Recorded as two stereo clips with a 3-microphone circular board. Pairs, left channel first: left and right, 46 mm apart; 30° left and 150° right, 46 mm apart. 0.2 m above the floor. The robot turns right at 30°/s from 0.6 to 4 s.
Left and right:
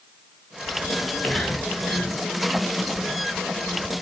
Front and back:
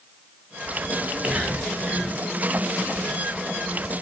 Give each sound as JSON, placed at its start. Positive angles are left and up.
{"t": 0.9, "sound": "whispering", "azimuth_deg": 160, "distance_m": 1.2}